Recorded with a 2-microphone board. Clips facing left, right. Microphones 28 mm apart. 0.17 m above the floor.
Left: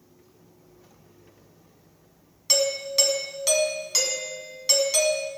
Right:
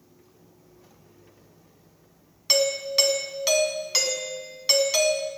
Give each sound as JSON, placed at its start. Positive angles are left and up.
{"t": 2.5, "sound": "a doorbell", "side_deg": -20, "distance_m": 1.5}